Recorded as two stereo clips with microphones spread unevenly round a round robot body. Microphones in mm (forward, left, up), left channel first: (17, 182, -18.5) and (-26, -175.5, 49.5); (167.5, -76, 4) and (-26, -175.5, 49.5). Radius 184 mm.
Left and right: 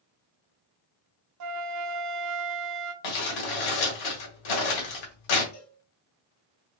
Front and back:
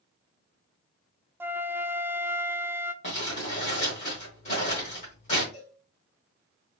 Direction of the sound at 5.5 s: 70° left.